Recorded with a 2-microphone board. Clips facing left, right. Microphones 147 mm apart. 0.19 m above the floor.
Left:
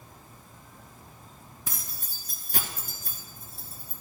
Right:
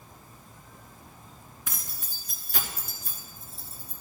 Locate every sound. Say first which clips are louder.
1.7 s keys jangling: even; 35° left (ahead or behind), 1.8 m; by 4.0 s 65° left (ahead or behind), 2.5 m